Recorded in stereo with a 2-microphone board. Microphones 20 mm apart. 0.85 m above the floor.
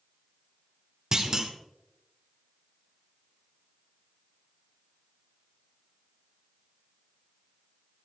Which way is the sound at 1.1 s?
25° right (ahead or behind).